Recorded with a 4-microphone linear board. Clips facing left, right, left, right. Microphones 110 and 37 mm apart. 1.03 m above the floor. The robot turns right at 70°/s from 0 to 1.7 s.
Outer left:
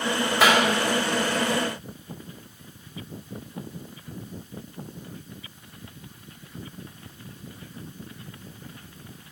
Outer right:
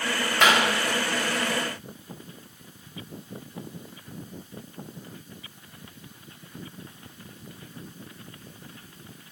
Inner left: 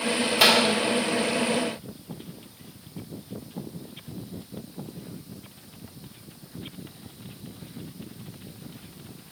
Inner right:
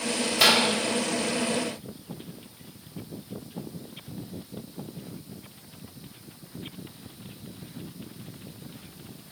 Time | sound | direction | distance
0.4 | a clap | 5° left (ahead or behind) | 4.5 m